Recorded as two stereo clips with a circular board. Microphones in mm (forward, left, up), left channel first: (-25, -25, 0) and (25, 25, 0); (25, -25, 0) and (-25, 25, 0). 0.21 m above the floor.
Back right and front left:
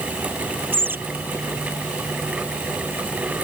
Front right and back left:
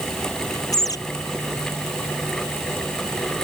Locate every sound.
0.7 s a bird: 15° right